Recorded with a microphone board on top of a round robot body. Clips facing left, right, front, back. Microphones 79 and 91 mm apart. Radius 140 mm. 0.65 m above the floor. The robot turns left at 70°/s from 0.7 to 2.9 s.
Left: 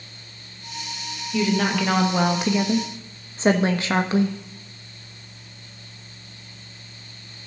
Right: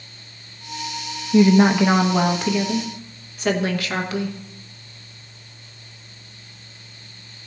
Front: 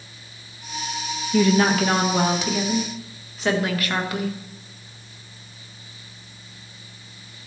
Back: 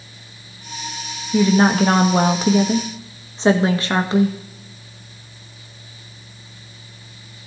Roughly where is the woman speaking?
Behind right.